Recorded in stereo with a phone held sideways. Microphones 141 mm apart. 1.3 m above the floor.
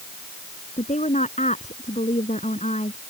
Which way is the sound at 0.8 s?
60° left (ahead or behind).